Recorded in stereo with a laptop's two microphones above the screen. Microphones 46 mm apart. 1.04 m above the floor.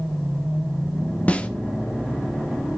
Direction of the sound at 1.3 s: 30° left (ahead or behind).